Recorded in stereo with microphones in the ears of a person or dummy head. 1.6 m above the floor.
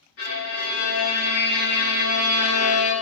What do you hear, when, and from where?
0.2 s a violin: 75° left (ahead or behind), 1.0 m